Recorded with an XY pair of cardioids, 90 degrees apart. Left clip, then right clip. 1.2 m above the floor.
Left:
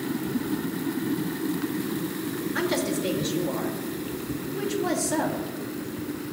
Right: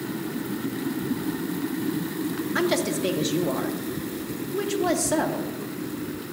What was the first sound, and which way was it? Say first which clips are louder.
A woman speaking: right 3 dB; 50° right.